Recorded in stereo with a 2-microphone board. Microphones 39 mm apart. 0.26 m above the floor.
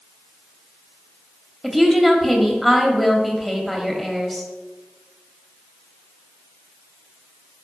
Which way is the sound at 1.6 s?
Centre (ahead or behind).